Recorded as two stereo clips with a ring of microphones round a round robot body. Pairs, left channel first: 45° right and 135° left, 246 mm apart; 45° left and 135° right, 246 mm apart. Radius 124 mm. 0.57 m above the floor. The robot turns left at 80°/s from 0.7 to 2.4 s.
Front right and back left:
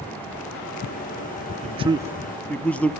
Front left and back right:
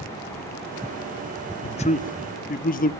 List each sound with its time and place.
1.6 s a man speaking: 100° left, 0.8 m; by 2.9 s 35° left, 0.8 m